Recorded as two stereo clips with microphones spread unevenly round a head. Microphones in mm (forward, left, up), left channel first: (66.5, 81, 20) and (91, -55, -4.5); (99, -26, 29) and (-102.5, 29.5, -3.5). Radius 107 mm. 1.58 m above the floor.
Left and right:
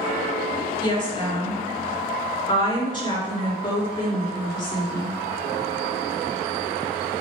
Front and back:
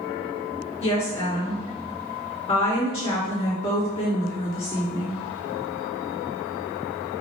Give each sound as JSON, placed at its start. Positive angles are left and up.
{"t": 0.8, "sound": "a woman speaking", "azimuth_deg": 45, "distance_m": 3.5}